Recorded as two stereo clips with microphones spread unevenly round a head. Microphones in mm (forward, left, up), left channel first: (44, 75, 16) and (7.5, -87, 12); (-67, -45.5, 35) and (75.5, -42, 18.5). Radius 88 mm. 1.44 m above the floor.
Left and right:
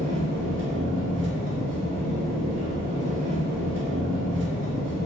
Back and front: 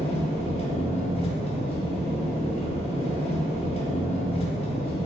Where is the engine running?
130° right, 0.7 m.